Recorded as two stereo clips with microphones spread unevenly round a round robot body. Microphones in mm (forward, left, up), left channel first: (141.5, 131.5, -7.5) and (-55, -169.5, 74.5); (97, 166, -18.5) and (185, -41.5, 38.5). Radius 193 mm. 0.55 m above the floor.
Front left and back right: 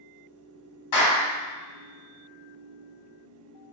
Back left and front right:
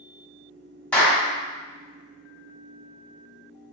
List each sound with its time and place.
0.9 s a clap: 35° left, 1.5 m